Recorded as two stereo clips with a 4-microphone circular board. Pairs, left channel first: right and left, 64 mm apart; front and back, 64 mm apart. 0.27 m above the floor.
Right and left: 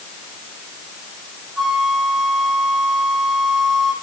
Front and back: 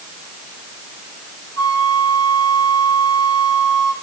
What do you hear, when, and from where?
1.6 s a flute: 10° left, 7 m